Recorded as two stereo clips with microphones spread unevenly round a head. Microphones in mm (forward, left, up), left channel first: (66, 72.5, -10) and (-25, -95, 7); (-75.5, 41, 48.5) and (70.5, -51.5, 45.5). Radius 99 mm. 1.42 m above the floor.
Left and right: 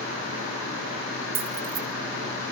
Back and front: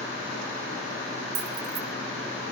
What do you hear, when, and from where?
1.4 s keys jangling: 85° right, 1.6 m